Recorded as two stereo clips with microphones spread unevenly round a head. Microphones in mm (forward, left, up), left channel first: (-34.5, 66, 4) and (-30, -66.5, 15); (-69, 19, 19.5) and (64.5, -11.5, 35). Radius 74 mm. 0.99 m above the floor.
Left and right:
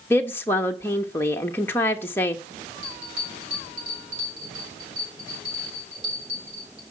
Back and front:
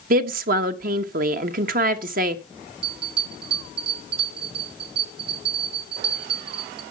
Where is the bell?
30° right, 4.5 m.